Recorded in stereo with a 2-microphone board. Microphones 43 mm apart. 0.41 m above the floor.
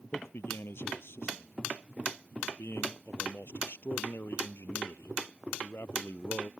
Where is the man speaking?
70° left (ahead or behind).